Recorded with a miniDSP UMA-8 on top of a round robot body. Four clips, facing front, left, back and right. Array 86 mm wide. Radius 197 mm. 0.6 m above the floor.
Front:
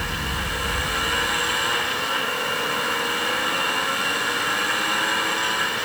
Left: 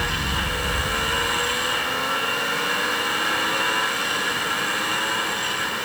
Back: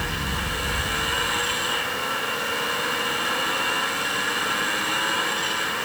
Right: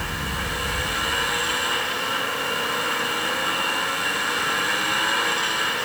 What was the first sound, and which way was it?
Only background noise.